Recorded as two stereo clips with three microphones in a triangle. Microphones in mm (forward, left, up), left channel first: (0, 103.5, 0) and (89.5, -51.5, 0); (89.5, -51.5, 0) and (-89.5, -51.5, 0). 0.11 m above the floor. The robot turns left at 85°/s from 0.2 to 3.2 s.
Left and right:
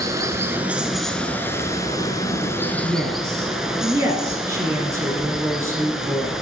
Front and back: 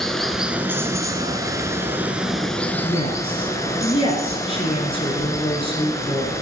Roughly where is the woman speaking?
Ahead left.